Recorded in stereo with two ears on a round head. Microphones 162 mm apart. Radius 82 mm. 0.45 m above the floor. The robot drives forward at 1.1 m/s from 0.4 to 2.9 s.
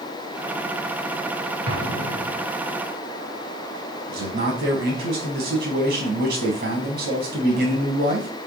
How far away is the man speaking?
About 4 m.